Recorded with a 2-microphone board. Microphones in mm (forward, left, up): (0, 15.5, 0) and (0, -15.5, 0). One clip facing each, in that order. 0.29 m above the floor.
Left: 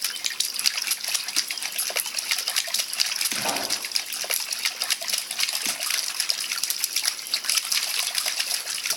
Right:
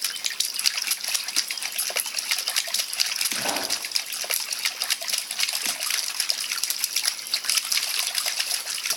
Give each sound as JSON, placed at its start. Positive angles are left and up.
{"t": 3.4, "sound": "a pop", "side_deg": 0, "distance_m": 3.5}